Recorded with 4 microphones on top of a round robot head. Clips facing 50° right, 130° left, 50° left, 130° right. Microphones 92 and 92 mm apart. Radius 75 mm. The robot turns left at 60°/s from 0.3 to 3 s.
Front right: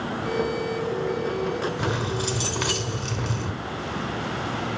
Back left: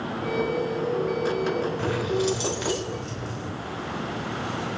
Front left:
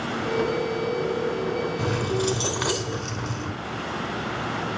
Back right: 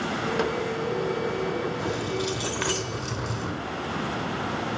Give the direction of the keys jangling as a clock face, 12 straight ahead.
11 o'clock.